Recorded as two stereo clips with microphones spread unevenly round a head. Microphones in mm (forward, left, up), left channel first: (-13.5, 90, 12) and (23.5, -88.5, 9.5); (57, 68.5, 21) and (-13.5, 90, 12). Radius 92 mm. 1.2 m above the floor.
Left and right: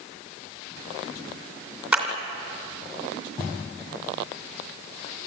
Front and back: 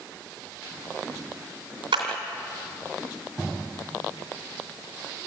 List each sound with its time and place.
1.9 s a clap: 165° right, 2.5 m